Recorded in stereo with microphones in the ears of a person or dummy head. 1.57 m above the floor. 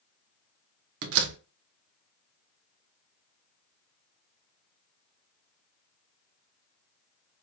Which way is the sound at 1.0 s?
65° right (ahead or behind).